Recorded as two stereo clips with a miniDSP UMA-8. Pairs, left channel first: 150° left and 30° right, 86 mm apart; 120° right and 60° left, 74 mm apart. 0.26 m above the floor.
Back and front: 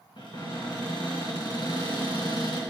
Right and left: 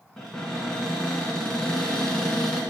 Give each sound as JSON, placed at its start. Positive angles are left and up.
{"t": 0.2, "sound": "a cupboard door", "azimuth_deg": 160, "distance_m": 1.8}